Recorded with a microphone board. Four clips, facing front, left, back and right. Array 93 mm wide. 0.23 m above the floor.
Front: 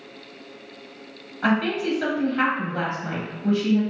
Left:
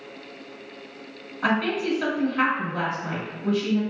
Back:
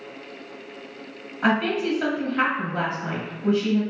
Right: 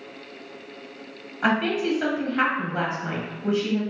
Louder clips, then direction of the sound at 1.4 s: Right 1 dB, even; 110° right.